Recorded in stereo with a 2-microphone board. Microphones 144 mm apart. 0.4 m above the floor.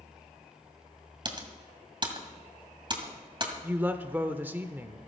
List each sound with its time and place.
1.2 s typing on a keyboard: 35° right (ahead or behind), 1.9 m
3.6 s a woman speaking: 15° right (ahead or behind), 0.8 m